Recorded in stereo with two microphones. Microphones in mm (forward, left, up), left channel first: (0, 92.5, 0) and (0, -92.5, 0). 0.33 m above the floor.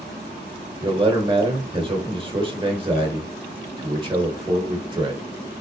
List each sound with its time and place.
0.8 s a man speaking: 30° right (ahead or behind), 0.9 m